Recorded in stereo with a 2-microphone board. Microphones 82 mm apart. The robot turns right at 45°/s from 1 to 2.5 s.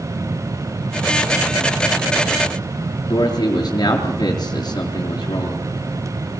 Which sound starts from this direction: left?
A man speaking, at 3.1 s.